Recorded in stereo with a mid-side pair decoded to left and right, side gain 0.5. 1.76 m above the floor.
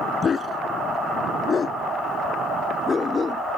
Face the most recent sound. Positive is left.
turn(degrees=30)